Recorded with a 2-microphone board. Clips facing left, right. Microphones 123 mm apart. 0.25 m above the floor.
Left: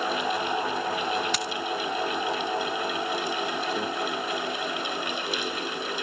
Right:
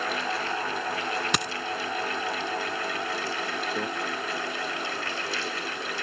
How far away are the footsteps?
I don't hear footsteps.